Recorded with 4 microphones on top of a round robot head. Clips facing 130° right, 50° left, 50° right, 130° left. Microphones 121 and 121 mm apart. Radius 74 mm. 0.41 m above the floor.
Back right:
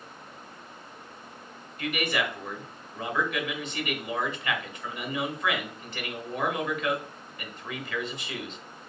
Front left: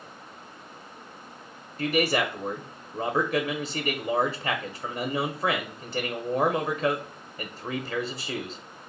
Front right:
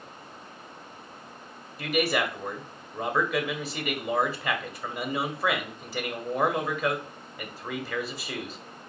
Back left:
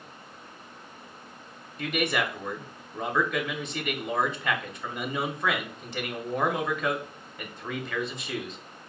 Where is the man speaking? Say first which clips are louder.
Front left 5 dB, front right 2 dB; 30° left, 0.9 m.